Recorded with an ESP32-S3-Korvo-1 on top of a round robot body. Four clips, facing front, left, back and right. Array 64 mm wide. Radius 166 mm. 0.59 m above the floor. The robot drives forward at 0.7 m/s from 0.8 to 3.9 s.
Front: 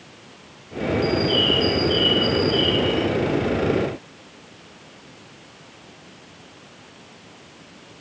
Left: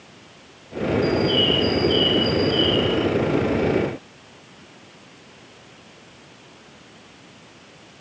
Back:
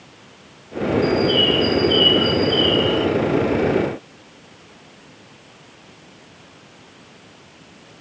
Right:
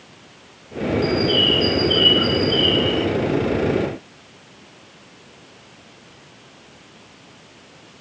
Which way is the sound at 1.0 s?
95° right.